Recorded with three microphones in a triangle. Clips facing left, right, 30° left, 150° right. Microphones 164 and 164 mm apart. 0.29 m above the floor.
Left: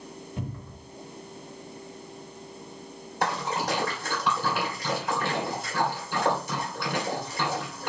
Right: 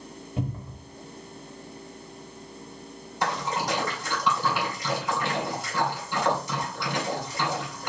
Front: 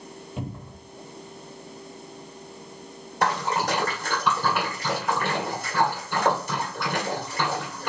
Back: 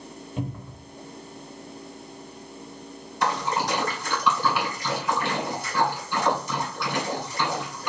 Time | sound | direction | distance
0.4 | a cupboard door | 55° right | 1.7 m
3.2 | a splash | 60° left | 1.9 m